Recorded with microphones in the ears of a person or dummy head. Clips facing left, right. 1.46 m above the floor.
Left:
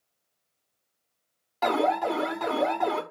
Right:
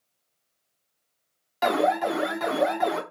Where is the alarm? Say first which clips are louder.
Right 2 dB; 15° right (ahead or behind), 1.2 m.